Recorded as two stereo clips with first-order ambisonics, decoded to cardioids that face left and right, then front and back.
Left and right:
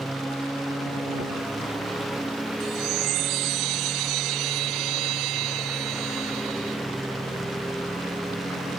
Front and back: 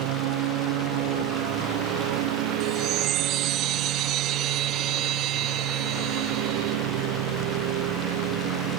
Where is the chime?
130° right.